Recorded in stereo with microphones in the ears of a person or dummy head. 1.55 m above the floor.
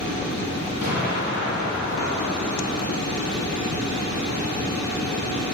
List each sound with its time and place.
0.8 s an explosion: 35° right (ahead or behind), 1.8 m